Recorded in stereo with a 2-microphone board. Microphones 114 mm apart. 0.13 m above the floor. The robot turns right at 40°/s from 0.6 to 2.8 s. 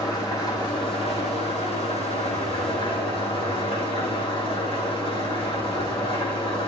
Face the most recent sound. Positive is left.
turn(degrees=125)